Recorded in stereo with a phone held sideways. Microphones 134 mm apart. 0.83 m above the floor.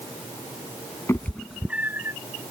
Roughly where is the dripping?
No dripping in this recording.